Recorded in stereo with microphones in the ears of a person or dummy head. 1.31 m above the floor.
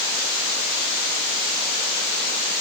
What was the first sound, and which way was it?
Only background noise.